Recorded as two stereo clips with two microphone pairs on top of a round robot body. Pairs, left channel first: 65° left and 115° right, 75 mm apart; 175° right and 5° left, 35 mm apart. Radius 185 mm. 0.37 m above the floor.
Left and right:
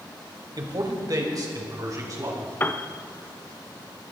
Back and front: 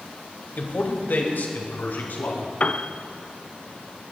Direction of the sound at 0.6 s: 140° right.